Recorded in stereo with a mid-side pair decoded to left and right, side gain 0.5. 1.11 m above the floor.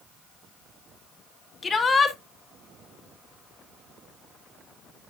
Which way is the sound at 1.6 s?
30° left.